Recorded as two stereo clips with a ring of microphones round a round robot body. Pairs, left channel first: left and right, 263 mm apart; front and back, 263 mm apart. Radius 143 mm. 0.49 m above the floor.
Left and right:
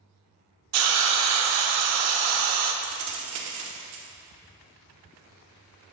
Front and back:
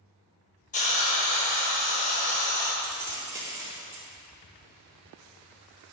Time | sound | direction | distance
0.7 | a hiss | 65° right | 0.6 m
2.8 | keys jangling | 100° right | 0.7 m